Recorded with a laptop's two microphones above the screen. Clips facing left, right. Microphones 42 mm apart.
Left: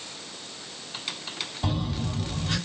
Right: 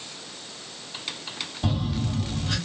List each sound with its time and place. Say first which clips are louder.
1.6 s a phone buzzing: right 2 dB; 10° left (ahead or behind), 2.5 m